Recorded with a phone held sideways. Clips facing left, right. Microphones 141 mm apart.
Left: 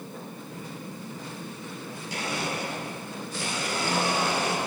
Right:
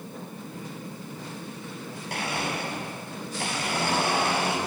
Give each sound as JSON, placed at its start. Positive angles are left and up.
{"t": 2.1, "sound": "a blender", "side_deg": -65, "distance_m": 5.0}